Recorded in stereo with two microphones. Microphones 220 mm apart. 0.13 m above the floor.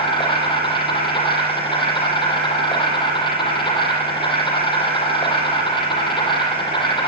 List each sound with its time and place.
0.0 s an insect: 20° left (ahead or behind), 7.5 m